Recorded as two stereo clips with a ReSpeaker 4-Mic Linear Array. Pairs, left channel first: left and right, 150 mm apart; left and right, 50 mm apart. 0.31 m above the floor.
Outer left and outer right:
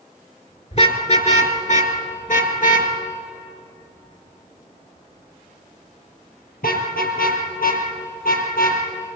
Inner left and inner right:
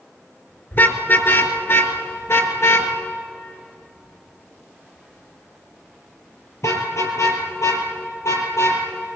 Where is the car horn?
45° left (ahead or behind), 3 m; by 8.8 s 75° left (ahead or behind), 5.5 m.